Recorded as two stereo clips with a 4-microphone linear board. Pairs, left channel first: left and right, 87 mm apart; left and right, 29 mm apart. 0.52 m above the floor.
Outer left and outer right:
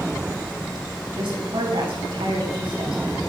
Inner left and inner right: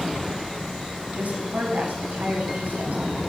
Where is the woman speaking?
75° right (ahead or behind), 5 m.